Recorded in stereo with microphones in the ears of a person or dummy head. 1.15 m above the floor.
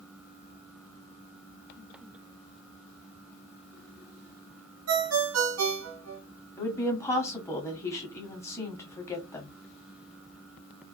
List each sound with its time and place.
4.9 s a ringtone: 85° right, 0.9 m
6.6 s a woman speaking: 15° left (ahead or behind), 0.8 m